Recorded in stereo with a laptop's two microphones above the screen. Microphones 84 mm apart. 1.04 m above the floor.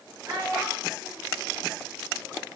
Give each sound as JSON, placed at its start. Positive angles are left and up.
{"t": 0.3, "sound": "a child speaking", "side_deg": -45, "distance_m": 0.9}